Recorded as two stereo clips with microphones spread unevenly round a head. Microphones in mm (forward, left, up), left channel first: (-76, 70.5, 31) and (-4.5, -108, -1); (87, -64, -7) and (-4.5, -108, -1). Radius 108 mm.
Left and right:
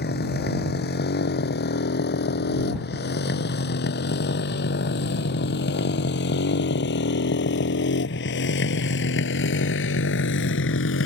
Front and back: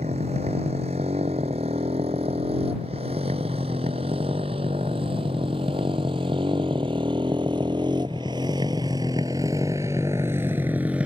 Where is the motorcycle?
145° left; by 11.1 s 125° left.